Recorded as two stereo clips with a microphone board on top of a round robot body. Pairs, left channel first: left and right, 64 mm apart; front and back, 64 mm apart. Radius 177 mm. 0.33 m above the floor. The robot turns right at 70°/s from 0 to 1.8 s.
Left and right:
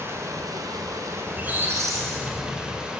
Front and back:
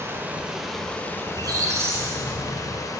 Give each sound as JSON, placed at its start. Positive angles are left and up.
{"t": 0.0, "sound": "running water", "azimuth_deg": -140, "distance_m": 1.3}
{"t": 1.3, "sound": "a squeak", "azimuth_deg": -170, "distance_m": 0.7}